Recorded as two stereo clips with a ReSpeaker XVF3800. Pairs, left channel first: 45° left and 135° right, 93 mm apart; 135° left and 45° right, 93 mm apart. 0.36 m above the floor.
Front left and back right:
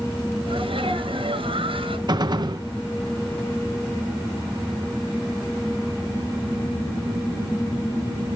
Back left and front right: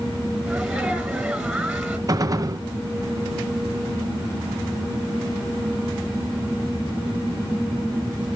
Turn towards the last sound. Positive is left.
turn(degrees=-95)